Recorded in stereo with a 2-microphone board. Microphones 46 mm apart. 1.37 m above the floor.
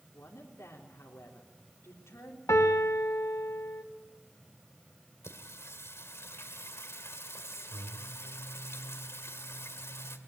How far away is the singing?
About 1.9 m.